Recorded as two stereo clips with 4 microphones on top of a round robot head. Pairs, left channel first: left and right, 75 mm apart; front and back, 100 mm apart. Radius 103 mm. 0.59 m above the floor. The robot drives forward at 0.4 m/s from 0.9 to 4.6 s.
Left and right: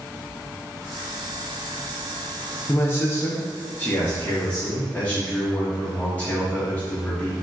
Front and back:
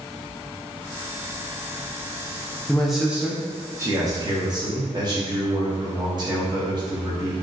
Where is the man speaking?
80° left, 0.7 m; by 7.4 s 155° left, 1.0 m.